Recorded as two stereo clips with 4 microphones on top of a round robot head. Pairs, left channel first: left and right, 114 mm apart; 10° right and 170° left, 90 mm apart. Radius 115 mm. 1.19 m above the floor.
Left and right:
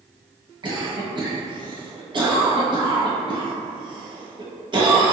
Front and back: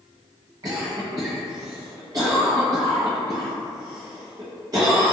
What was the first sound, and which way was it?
A cough, 140° right.